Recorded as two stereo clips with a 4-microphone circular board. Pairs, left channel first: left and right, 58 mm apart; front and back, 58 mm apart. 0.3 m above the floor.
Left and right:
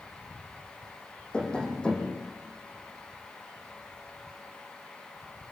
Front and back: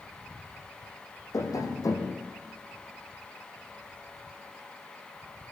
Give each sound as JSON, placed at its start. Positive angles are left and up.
{"t": 1.3, "sound": "tapping", "azimuth_deg": 15, "distance_m": 5.0}